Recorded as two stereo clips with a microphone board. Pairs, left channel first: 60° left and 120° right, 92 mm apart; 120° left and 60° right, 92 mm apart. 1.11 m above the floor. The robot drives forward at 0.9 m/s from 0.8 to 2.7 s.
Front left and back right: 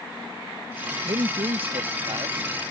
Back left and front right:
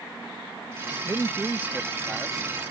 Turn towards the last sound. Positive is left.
turn(degrees=-150)